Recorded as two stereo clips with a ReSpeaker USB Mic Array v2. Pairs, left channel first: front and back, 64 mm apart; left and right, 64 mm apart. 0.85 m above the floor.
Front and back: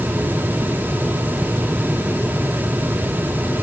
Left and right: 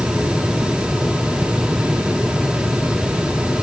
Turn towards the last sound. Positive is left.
No sound to turn to.